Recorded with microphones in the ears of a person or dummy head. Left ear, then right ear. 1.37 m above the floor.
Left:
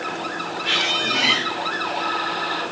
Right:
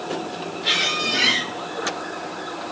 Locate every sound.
0.6 s a squeak: 55° right (ahead or behind), 3 m